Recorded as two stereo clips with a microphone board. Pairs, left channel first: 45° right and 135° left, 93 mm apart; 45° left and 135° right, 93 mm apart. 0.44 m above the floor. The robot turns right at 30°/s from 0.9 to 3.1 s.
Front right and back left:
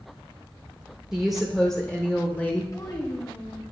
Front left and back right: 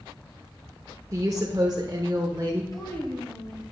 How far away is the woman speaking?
About 0.9 m.